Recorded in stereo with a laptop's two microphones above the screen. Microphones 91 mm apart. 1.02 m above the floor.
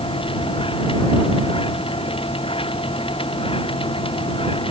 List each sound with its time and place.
0.0 s a machine running: 70° left (ahead or behind)